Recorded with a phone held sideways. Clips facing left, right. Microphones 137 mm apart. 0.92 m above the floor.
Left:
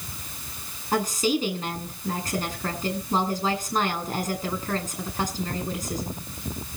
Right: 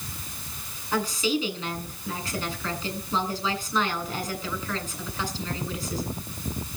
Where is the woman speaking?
45° left (ahead or behind), 8.5 m.